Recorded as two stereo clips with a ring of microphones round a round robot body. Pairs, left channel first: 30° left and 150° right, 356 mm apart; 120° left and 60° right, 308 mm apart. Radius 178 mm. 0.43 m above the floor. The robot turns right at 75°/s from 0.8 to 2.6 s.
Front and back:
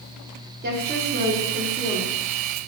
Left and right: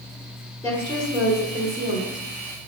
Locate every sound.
0.6 s a woman speaking: 170° right, 0.9 m; by 2.2 s 60° right, 0.9 m